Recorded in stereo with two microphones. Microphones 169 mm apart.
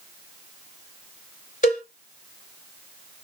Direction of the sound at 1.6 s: 50° left (ahead or behind).